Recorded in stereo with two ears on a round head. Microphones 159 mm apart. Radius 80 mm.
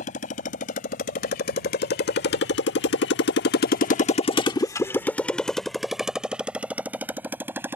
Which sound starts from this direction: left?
A motorcycle, at 0.0 s.